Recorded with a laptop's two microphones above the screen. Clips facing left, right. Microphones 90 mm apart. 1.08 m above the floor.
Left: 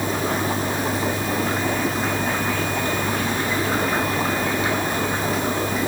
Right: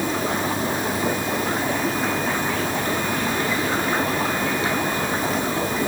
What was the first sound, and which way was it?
Only background noise.